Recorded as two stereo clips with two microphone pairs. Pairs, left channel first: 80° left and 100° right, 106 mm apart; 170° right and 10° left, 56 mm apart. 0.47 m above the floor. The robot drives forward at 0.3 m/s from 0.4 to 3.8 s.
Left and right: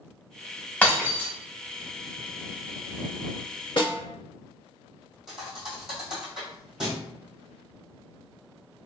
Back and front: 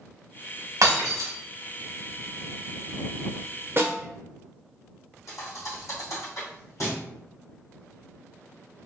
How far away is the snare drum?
About 0.8 m.